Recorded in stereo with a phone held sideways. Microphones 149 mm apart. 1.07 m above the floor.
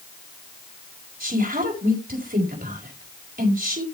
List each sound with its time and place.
1.2 s a woman speaking: 80° right, 5 m